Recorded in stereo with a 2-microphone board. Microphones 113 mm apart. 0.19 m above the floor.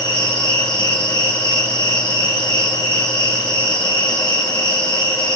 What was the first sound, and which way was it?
An insect, 35° left (ahead or behind).